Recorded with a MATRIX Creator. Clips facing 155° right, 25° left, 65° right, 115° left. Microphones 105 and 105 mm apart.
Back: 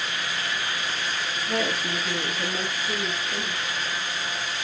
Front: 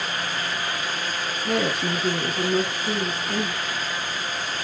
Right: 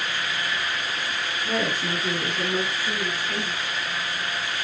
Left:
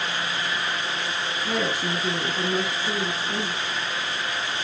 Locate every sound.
1.4 s a woman speaking: 30° left, 3 m; by 3.6 s 50° left, 3.5 m